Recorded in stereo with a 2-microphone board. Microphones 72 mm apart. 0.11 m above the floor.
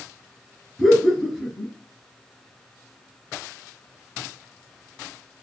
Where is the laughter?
5° left (ahead or behind), 1.2 m.